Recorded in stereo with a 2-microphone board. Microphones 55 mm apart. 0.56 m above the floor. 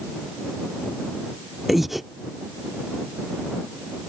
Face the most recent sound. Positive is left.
turn(degrees=-5)  # may be behind; listen again after turning